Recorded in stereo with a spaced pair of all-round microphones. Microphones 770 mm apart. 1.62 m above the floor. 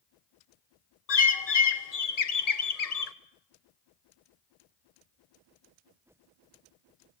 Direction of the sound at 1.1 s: 55° left (ahead or behind).